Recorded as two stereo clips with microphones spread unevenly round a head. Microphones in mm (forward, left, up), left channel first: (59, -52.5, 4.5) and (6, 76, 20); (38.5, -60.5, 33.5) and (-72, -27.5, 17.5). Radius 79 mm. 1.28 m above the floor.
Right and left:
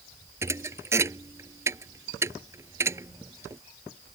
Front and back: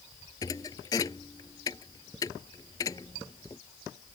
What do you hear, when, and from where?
0.4 s a thud: 50° left